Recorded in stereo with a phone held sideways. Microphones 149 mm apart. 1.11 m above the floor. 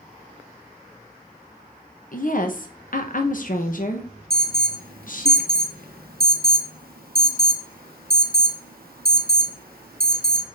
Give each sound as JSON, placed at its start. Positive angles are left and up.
{"t": 2.1, "sound": "a woman speaking", "side_deg": 60, "distance_m": 0.9}
{"t": 4.3, "sound": "an alarm", "side_deg": -70, "distance_m": 0.8}